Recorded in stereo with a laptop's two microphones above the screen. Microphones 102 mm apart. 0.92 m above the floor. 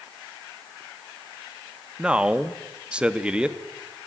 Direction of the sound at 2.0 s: 10° right (ahead or behind).